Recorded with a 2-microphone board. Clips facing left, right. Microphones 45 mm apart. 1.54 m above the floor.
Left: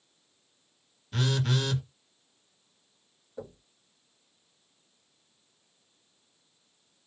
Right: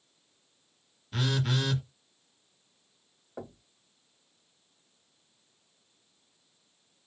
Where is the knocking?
70° right (ahead or behind), 1.5 m.